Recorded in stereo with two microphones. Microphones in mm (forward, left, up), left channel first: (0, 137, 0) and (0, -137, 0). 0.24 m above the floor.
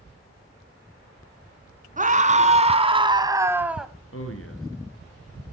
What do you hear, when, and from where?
2.0 s a scream: 30° right (ahead or behind), 2.5 m; by 3.9 s centre (ahead or behind), 1.3 m
4.1 s a man speaking: 55° left (ahead or behind), 3 m